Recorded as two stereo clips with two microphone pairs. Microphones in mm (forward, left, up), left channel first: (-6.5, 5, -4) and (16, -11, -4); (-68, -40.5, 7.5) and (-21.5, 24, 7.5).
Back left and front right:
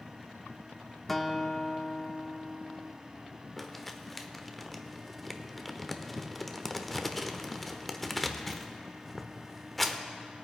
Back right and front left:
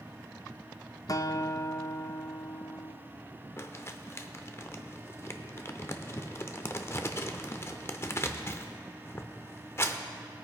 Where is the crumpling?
135° right, 0.7 m.